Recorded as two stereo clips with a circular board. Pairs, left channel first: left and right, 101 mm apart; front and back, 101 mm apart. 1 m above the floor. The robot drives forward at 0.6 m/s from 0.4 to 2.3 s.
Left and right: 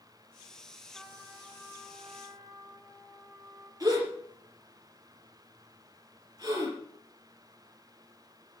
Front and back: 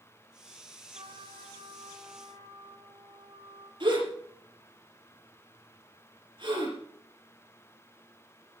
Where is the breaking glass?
I don't hear breaking glass.